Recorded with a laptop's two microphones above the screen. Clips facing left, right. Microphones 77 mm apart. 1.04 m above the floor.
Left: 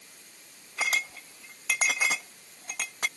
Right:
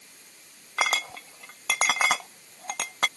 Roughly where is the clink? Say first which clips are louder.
Right 3 dB; right.